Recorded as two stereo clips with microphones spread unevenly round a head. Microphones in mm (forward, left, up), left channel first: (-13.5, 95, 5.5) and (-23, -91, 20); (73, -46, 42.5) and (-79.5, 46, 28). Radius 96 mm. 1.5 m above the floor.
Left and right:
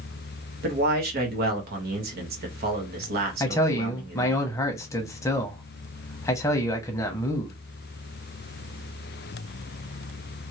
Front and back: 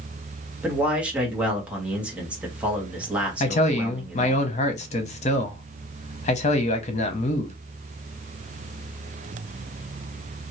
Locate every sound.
0.6 s a man speaking: 125° right, 1.3 m
3.4 s a man speaking: 10° left, 0.7 m